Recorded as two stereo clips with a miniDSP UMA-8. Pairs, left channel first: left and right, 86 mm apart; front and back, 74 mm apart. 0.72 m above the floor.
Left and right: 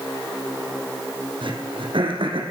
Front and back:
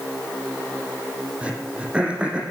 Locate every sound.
1.4 s throat clearing: 105° right, 4.5 m